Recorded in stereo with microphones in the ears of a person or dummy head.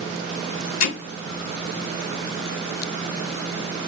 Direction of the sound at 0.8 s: 55° left (ahead or behind).